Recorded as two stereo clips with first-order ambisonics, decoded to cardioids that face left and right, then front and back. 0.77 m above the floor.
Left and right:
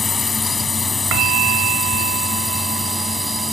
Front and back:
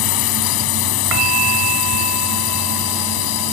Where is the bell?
130° right.